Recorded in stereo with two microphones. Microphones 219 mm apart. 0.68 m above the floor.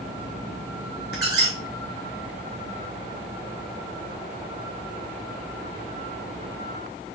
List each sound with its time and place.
1.1 s a squeak: 45° left (ahead or behind), 3 m